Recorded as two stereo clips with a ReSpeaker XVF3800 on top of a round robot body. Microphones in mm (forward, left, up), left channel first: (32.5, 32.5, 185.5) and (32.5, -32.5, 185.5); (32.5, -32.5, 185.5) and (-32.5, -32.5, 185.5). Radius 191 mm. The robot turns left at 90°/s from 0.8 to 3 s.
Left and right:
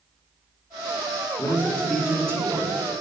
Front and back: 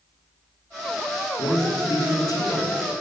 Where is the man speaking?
50° left, 1.1 m; by 3.0 s 95° right, 1.1 m.